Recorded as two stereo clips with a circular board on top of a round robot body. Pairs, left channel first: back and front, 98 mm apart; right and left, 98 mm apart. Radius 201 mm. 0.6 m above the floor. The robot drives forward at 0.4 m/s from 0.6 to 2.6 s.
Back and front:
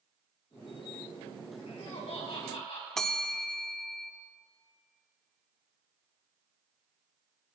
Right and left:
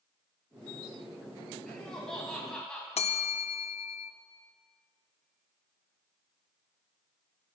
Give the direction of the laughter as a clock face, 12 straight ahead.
6 o'clock.